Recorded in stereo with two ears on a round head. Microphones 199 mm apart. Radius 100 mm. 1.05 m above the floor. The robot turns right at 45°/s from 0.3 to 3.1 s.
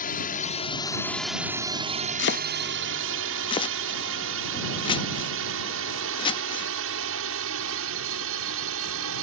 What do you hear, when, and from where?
0.0 s a drone: 40° left (ahead or behind); by 9.2 s 65° right (ahead or behind)
2.2 s chopping: 55° left (ahead or behind); by 6.7 s 20° left (ahead or behind)